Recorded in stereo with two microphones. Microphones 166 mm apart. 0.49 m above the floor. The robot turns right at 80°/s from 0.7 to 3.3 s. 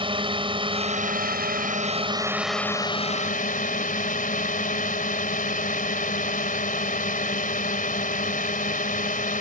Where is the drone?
145° right; by 9.4 s 65° left.